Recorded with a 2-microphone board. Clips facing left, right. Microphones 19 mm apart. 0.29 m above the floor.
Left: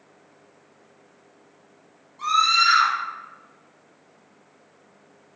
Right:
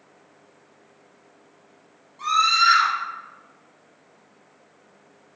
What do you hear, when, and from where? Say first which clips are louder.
2.2 s a scream: even; 5° right (ahead or behind), 1.7 m